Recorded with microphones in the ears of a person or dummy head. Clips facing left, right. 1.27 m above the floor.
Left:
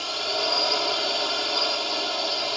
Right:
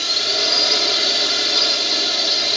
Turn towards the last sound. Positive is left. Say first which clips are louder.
# right 2 dB
turn(degrees=-25)  # may be behind; listen again after turning